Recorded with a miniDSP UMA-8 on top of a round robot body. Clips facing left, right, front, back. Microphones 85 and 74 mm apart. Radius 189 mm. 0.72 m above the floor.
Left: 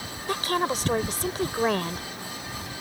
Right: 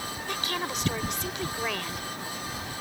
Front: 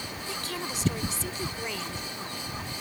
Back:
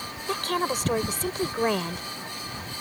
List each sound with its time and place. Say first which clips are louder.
0.3 s a woman speaking: left 8 dB, back 10 dB; 145° left